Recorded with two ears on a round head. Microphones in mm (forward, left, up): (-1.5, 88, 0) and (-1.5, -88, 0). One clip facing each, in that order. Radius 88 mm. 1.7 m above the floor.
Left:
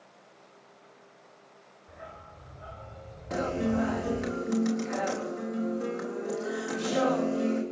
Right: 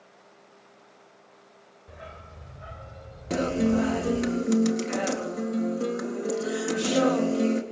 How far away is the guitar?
About 4 m.